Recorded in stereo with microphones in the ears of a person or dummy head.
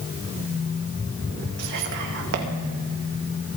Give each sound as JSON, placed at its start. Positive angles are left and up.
{"t": 1.6, "sound": "whispering", "side_deg": -60, "distance_m": 2.5}